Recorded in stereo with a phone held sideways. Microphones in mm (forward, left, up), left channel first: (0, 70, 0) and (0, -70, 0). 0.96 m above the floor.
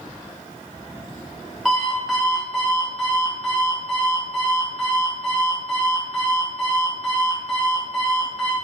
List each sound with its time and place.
1.6 s an alarm clock: centre (ahead or behind), 1.2 m